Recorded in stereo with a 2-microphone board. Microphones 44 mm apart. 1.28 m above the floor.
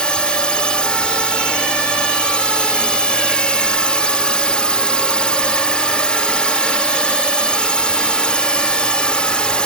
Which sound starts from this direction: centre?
A drone, at 0.0 s.